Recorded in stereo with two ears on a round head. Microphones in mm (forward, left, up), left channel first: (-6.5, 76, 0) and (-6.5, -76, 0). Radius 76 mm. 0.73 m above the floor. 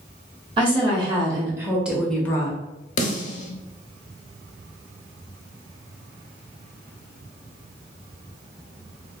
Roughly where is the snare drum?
Left.